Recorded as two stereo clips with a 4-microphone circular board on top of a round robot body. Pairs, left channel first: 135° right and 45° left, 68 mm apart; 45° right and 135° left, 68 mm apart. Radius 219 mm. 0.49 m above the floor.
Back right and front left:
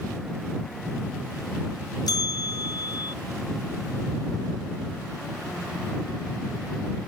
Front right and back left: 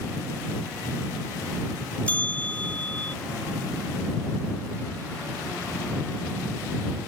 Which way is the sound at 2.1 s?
115° right.